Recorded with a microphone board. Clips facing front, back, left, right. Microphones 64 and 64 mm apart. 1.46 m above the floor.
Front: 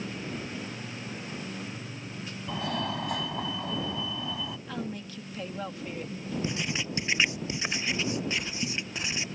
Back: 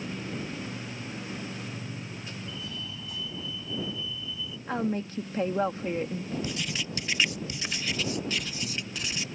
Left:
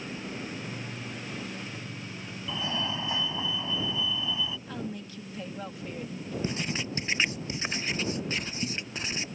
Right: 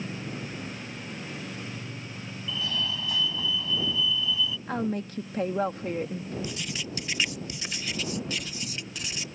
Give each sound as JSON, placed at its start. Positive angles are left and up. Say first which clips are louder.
{"t": 2.5, "sound": "a fire alarm", "louder": "front 8 dB, even", "azimuth_deg": 25}
{"t": 4.7, "sound": "a woman speaking", "louder": "back 7 dB, right 7 dB", "azimuth_deg": -130}
{"t": 6.4, "sound": "writing", "louder": "front 2 dB, left 3 dB", "azimuth_deg": 50}